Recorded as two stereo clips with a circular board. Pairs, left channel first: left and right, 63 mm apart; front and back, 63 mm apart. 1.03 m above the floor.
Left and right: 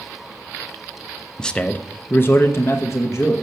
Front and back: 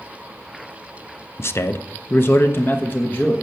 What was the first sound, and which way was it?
A man speaking, 15° left.